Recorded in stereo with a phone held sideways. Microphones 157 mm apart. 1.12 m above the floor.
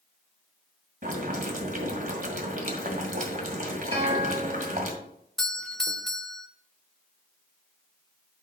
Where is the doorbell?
Centre (ahead or behind), 0.6 m.